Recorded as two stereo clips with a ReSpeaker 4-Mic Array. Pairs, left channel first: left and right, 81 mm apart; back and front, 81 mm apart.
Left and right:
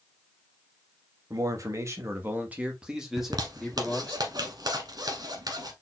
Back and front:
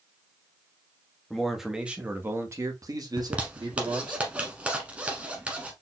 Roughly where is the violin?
I don't hear a violin.